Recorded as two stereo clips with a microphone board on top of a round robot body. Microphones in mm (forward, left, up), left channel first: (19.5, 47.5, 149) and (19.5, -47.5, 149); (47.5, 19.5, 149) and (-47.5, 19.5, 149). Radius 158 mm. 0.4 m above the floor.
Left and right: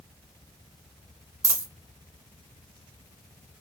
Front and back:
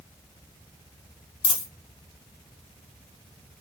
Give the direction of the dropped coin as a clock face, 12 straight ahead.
1 o'clock.